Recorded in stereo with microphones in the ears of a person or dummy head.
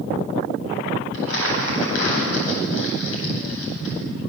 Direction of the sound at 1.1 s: 85° left.